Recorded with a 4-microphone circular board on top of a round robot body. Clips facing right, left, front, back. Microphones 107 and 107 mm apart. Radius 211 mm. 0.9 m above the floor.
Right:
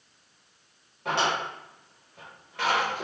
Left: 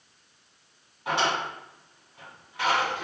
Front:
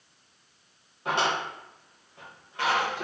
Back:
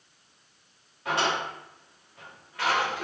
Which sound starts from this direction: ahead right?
A drawer, at 1.1 s.